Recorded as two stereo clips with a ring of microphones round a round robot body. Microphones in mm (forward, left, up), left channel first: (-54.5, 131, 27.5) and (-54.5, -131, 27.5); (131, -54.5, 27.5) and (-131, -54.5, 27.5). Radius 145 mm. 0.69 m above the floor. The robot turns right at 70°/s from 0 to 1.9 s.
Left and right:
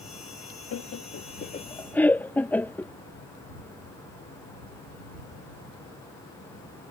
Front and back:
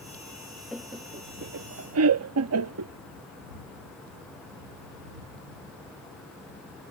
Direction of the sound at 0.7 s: 90° left.